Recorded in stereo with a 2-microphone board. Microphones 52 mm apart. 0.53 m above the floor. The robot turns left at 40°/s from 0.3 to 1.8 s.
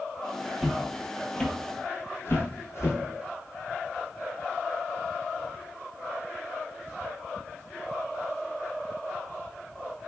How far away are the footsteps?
About 0.6 m.